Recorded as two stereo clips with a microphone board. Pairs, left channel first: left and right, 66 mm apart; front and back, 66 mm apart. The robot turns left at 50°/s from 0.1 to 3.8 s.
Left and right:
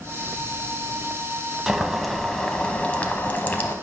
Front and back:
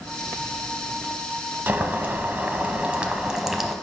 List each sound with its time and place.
1.7 s boiling: 160° right, 0.6 m; by 3.8 s 95° left, 0.6 m